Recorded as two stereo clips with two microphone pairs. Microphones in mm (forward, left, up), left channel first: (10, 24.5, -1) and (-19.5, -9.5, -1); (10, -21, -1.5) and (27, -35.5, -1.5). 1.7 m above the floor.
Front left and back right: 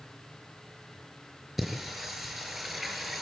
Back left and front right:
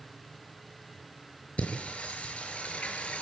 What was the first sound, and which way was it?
Singing, 140° left.